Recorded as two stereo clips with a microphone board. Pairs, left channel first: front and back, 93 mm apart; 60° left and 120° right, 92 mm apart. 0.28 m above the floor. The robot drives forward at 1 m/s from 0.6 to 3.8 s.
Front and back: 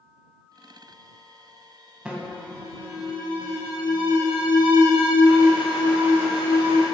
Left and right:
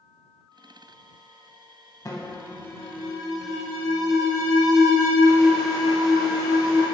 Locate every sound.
2.0 s an alarm: 100° left, 1.0 m; by 6.8 s 155° left, 2 m